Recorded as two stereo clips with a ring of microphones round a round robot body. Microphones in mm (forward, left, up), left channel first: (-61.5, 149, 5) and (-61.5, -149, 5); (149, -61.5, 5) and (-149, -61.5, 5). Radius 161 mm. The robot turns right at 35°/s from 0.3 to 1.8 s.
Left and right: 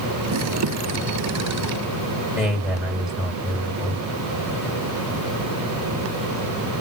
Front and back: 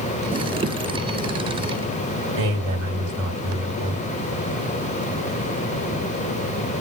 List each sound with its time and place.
2.3 s a man speaking: 170° right, 1.8 m